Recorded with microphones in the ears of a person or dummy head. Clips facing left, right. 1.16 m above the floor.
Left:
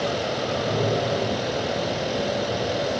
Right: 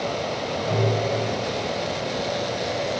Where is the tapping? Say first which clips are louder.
Right 1 dB; 10° left (ahead or behind), 1.1 m.